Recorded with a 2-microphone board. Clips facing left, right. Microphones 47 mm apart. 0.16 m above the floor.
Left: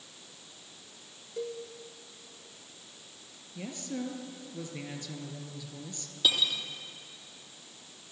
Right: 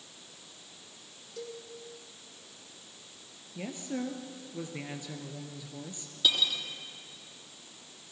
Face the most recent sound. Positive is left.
turn(degrees=10)  # may be behind; listen again after turning